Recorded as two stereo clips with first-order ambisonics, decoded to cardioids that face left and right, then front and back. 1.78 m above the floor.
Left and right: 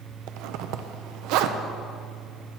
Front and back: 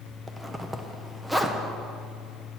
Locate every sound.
0.3 s a zipper: 95° right, 0.7 m